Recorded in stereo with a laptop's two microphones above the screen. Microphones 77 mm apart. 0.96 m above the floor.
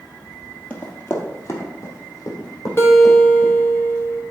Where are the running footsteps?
20° left (ahead or behind), 1.4 m; by 3.5 s 55° left (ahead or behind), 3 m.